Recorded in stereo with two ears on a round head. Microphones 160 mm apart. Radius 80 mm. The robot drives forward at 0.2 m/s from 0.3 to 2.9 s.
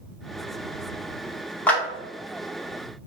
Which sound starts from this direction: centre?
A clap, at 1.7 s.